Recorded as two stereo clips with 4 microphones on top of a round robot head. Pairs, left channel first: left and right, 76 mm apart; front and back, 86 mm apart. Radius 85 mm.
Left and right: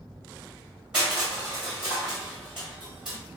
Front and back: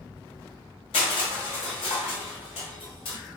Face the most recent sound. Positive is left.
turn(degrees=-5)